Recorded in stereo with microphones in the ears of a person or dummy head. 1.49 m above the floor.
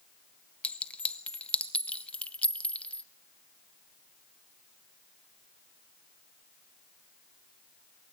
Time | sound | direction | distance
0.6 | a clink | 10° left (ahead or behind) | 0.8 m